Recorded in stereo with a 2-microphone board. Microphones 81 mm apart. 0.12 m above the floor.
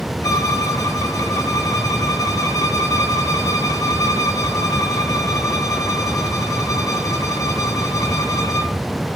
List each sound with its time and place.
0.2 s a violin: 40° left (ahead or behind), 2.5 m